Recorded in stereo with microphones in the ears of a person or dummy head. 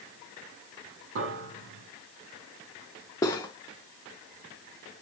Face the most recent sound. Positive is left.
turn(degrees=20)  # may be behind; listen again after turning